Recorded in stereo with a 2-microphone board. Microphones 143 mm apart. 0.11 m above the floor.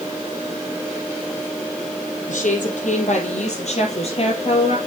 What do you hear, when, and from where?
2.3 s a woman speaking: 65° left (ahead or behind), 4.5 m; by 4.8 s 40° left (ahead or behind), 3.5 m